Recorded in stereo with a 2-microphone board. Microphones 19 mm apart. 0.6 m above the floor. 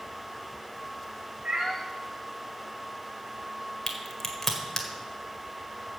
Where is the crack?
20° left (ahead or behind), 1.7 m.